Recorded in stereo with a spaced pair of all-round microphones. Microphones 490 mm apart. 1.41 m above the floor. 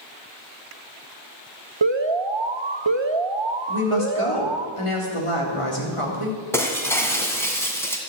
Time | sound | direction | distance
1.8 | an alarm | 60° right (ahead or behind) | 1.1 m
3.7 | a woman speaking | 85° left | 3.5 m
6.5 | breaking glass | 5° left (ahead or behind) | 2 m